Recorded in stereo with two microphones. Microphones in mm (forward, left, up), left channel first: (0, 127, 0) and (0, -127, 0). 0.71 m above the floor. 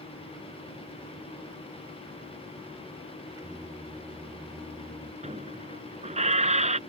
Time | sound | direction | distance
3.4 | singing | 15° right (ahead or behind) | ?
5.2 | a squeak | 30° right (ahead or behind) | ?